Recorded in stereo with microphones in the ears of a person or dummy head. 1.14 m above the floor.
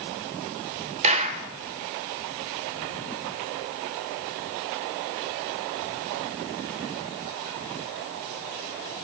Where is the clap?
35° right (ahead or behind), 1.6 m.